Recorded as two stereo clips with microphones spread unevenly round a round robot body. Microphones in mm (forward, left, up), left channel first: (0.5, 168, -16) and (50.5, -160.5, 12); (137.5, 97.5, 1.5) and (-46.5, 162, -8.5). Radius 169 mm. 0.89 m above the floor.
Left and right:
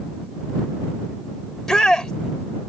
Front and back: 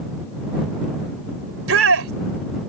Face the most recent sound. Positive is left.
turn(degrees=-170)